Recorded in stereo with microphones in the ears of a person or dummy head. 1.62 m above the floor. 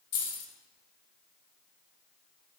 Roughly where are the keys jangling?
Left.